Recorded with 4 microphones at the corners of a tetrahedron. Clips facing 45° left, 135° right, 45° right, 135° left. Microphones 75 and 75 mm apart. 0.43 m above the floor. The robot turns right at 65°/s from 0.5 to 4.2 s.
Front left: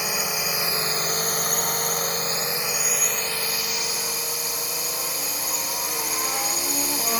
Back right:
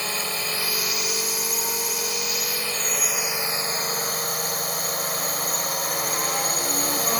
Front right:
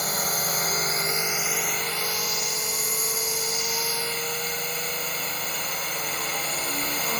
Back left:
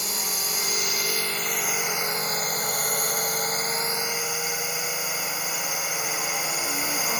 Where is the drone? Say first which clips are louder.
Front left 1 dB, front right 5 dB; 30° right; by 7.2 s 150° right.